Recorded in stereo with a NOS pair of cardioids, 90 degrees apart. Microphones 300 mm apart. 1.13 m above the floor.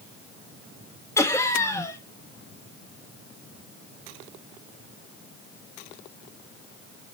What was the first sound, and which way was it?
Laughter, 10° left.